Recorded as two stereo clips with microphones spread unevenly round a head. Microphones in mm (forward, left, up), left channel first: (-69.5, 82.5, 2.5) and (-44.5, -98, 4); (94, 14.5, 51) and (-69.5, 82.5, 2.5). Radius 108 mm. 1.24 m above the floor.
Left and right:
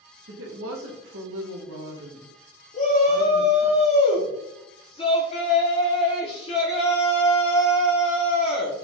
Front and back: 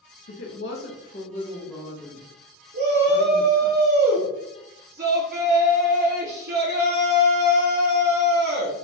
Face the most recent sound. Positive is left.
turn(degrees=155)